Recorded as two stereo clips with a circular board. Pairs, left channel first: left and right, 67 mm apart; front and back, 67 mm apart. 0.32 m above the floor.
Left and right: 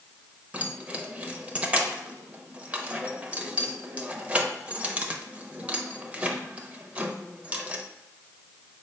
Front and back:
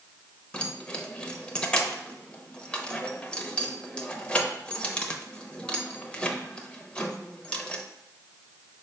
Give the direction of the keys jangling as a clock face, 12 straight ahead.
2 o'clock.